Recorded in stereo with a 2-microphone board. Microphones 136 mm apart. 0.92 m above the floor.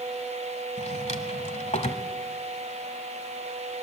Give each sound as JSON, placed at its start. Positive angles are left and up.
{"t": 0.8, "sound": "a drawer", "side_deg": 55, "distance_m": 1.3}